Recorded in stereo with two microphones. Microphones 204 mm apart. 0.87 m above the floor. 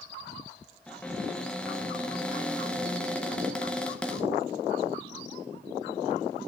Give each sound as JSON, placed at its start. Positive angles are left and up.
{"t": 0.9, "sound": "a cupboard door", "side_deg": 5, "distance_m": 0.9}